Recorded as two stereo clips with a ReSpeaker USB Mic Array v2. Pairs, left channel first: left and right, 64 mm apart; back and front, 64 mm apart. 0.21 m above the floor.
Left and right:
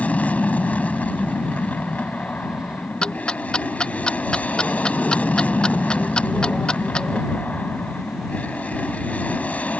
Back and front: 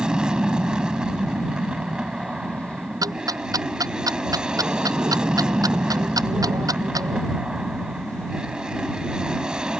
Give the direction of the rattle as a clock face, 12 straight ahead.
I don't hear a rattle.